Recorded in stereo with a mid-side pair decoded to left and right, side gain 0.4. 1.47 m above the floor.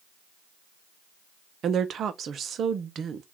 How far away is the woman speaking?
About 0.7 m.